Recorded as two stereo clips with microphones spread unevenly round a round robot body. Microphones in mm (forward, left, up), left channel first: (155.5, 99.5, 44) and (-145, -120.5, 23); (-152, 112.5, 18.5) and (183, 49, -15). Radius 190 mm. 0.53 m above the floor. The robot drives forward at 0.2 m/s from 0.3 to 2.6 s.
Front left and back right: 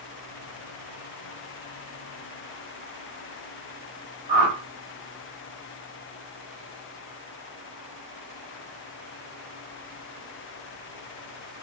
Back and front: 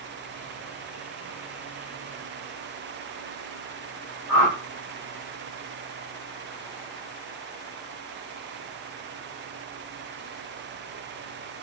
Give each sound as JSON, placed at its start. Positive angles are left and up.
{"t": 4.3, "sound": "a whoosh", "azimuth_deg": -150, "distance_m": 1.2}